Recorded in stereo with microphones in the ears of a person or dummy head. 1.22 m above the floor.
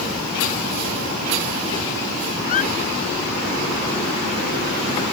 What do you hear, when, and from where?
2.5 s a squeak: 50° left (ahead or behind)